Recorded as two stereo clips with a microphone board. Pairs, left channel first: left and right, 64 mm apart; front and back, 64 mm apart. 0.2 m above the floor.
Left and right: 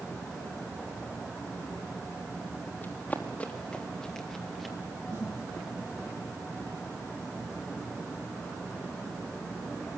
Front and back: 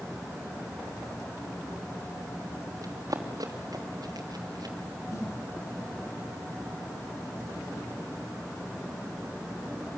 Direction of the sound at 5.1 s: 40° right.